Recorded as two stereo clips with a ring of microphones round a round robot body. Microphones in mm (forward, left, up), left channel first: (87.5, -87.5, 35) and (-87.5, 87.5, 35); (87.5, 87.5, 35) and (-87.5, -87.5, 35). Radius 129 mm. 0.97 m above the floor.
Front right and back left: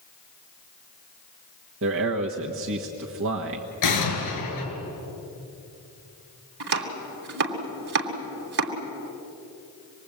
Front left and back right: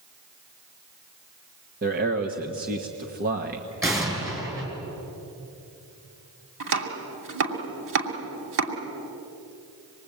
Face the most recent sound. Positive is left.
turn(degrees=-175)